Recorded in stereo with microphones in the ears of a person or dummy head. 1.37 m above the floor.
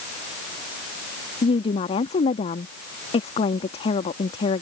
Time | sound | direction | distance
1.4 | a woman speaking | 35° left (ahead or behind) | ?